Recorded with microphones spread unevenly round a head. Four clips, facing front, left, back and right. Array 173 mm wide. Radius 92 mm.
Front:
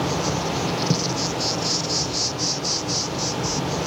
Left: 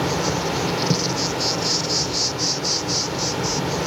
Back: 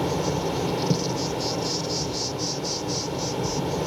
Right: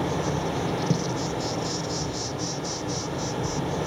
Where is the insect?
100° left, 0.7 m.